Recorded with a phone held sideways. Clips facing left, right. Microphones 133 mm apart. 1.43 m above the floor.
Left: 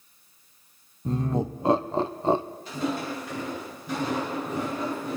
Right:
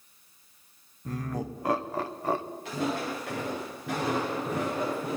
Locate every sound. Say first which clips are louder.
1.1 s laughter: left 7 dB; 25° left (ahead or behind), 0.9 m
2.6 s footsteps: left 1 dB; 80° right, 9 m